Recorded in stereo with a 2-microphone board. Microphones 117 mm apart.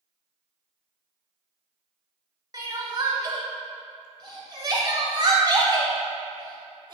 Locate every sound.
2.5 s crying: 35° right (ahead or behind), 0.7 m